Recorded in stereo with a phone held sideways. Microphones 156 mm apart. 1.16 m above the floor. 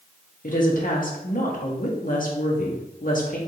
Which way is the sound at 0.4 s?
55° left (ahead or behind).